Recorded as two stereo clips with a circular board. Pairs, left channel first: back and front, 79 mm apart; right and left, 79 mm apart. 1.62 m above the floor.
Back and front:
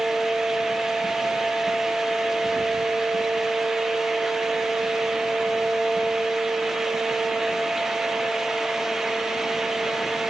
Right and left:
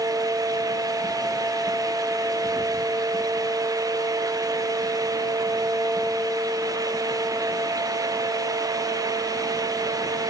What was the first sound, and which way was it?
Only background noise.